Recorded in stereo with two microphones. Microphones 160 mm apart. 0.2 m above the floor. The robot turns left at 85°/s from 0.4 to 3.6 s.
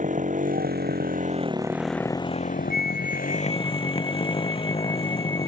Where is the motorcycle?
55° right; by 5.5 s 35° left.